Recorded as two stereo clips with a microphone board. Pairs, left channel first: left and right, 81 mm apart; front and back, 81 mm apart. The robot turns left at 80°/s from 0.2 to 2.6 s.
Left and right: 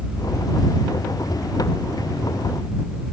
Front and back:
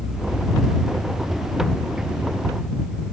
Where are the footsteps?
No footsteps in this recording.